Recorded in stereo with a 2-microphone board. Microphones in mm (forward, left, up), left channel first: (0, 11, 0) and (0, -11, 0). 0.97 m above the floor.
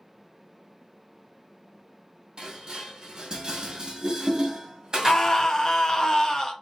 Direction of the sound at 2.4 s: 40° right (ahead or behind).